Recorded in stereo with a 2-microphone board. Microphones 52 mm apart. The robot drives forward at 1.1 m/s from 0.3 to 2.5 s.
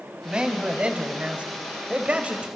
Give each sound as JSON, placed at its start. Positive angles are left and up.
{"t": 0.2, "sound": "a man speaking", "side_deg": -20, "distance_m": 2.5}